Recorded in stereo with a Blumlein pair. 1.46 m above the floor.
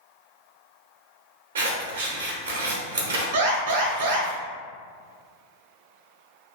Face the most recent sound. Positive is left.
turn(degrees=-55)